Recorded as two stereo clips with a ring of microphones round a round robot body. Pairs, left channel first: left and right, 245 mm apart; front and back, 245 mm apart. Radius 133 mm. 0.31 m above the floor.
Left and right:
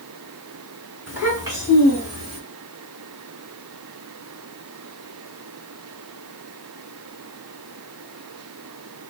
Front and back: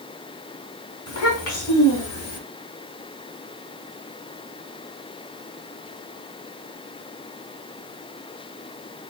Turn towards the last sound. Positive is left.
turn(degrees=-50)